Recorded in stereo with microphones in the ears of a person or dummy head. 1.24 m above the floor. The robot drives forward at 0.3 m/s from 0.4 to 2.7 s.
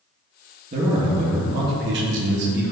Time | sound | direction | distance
0.7 | a man speaking | 40° right (ahead or behind) | 0.7 m